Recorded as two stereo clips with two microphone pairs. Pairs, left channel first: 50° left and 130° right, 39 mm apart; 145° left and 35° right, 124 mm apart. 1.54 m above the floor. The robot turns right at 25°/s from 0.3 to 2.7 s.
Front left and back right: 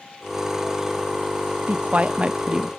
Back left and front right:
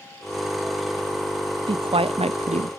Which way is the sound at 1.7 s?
80° right.